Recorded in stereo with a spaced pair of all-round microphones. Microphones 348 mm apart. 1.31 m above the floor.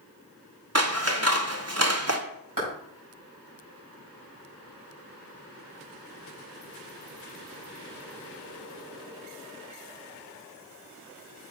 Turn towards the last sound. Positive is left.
turn(degrees=-65)  # may be behind; listen again after turning